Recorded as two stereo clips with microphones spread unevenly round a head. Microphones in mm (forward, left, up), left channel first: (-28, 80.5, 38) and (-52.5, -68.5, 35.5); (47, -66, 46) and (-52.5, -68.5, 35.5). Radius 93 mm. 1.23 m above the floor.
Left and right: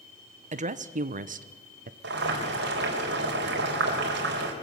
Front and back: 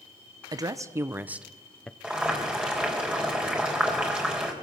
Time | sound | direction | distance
0.5 | a woman speaking | 135° right | 1.1 m
2.0 | boiling | 100° right | 4.5 m